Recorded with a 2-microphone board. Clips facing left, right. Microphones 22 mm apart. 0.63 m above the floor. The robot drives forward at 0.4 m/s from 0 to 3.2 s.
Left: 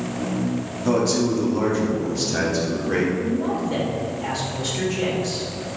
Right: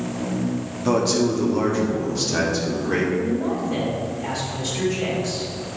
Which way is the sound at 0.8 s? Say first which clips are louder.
Right 1 dB; 10° right (ahead or behind).